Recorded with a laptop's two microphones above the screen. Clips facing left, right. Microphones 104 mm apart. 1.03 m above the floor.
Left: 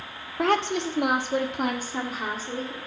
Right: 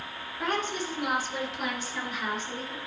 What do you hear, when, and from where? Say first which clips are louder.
0.4 s a woman speaking: left 7 dB; 80° left, 1.6 m; by 2.8 s 30° left (ahead or behind), 2.5 m